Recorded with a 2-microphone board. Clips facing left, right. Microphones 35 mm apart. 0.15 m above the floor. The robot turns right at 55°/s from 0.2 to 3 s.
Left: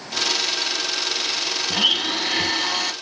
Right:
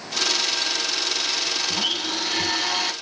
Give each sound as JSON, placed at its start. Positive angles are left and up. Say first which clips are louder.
{"t": 1.7, "sound": "a blender", "louder": "left 5 dB", "azimuth_deg": 115, "distance_m": 1.0}